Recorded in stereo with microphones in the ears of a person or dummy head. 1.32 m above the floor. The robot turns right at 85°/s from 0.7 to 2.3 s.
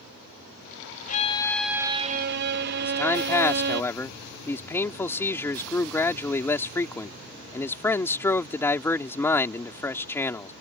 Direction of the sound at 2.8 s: 15° left (ahead or behind).